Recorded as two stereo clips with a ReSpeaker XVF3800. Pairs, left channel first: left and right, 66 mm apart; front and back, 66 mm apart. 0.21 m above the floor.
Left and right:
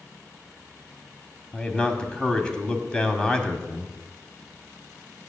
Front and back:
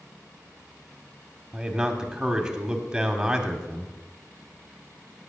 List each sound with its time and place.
1.5 s a man speaking: 130° left, 1.0 m